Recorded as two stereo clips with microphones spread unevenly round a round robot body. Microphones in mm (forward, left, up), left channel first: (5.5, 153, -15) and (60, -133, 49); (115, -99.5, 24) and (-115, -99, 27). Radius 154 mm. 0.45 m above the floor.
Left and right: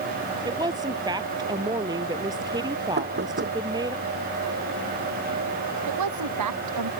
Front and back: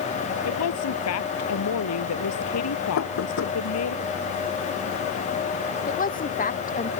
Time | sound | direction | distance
0.5 | a woman speaking | 5° right | ?
3.0 | knocking | 25° right | ?
5.9 | a woman speaking | 55° right | ?